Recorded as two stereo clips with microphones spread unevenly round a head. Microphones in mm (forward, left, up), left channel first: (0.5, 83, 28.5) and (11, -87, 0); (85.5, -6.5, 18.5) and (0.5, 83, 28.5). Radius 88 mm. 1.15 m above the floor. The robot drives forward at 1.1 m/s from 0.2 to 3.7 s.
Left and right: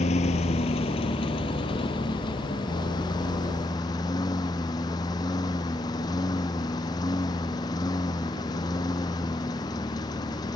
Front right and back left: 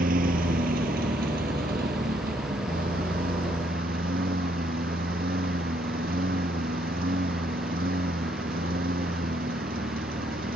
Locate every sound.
0.0 s a lawn mower: 145° left; by 10.6 s 160° left